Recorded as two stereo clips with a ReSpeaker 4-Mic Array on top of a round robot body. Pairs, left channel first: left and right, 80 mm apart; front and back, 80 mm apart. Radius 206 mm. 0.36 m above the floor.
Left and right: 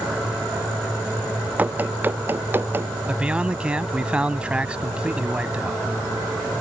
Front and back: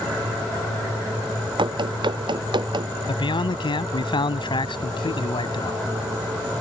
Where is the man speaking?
15° right.